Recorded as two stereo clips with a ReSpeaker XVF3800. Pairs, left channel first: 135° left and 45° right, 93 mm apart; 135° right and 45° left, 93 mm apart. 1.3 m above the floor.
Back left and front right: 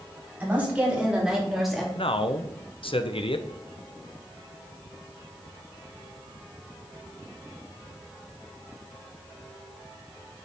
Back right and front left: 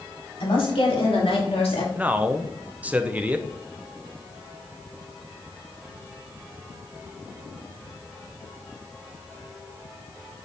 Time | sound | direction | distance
0.4 | a woman speaking | 115° right | 3 m
1.9 | a man speaking | 120° left | 0.6 m